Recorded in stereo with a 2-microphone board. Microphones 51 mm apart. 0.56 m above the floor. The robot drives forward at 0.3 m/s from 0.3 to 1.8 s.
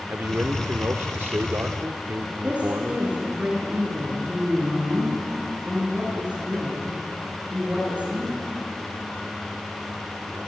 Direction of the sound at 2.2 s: 25° right (ahead or behind).